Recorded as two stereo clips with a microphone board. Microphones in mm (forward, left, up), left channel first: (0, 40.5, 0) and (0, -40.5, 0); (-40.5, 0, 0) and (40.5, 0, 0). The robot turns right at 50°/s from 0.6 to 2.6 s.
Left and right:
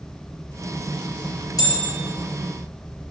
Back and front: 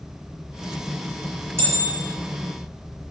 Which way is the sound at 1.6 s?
55° left.